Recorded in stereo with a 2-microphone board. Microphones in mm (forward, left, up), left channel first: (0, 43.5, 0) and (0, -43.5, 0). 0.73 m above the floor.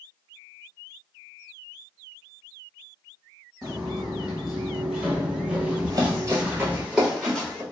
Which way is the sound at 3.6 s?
5° right (ahead or behind).